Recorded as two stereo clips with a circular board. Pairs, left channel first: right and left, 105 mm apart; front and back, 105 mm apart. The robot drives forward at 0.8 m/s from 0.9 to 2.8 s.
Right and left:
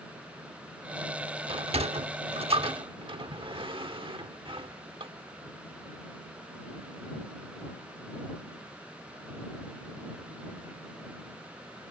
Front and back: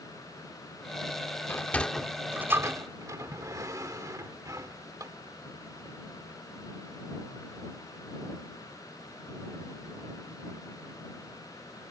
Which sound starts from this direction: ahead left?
A sliding door, at 1.5 s.